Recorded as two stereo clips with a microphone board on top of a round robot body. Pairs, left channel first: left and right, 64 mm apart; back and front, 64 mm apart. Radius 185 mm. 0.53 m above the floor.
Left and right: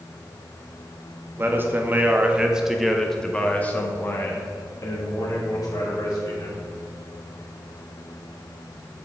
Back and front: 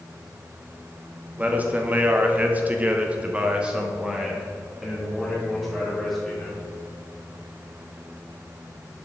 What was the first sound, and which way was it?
A man speaking, 55° right.